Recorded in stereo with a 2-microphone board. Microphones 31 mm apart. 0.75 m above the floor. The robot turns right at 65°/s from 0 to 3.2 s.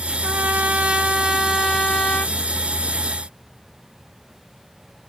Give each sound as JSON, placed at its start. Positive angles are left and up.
{"t": 0.2, "sound": "a trumpet", "azimuth_deg": -75, "distance_m": 0.9}